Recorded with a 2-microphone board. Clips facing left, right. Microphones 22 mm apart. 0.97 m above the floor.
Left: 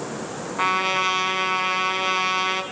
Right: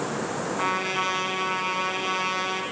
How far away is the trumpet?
About 3 m.